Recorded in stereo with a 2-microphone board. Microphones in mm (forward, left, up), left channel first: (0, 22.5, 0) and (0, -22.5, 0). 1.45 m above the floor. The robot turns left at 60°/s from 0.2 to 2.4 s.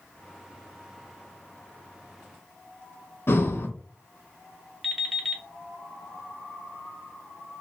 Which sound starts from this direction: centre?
An alarm clock, at 4.8 s.